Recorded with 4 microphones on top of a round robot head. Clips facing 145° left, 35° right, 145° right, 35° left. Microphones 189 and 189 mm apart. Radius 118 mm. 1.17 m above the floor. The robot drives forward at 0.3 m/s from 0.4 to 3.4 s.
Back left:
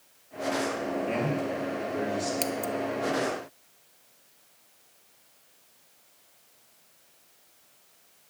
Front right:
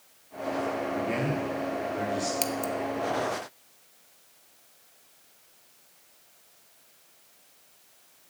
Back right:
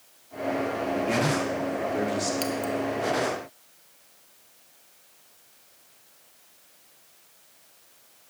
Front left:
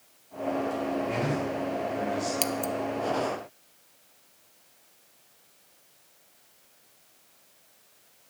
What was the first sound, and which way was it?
A man speaking, 115° right.